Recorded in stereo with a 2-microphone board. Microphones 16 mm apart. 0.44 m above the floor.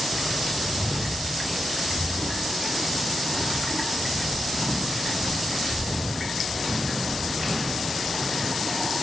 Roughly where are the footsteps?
Right.